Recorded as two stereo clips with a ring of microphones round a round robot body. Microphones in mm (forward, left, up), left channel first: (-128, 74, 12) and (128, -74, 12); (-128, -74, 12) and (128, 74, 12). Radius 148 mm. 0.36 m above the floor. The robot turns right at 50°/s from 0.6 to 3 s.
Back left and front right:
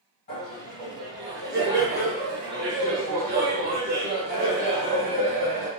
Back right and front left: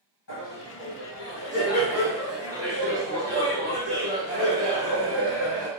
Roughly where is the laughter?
Behind.